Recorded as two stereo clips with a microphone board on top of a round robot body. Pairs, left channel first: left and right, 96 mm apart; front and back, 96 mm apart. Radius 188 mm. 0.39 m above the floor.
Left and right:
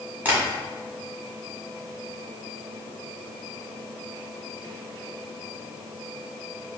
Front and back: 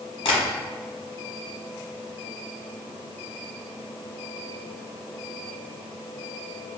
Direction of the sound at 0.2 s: 20° right.